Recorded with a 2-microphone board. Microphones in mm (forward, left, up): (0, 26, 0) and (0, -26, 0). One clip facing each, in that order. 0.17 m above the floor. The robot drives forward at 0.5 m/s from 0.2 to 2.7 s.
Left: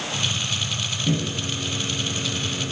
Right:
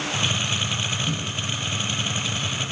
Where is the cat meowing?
I don't hear a cat meowing.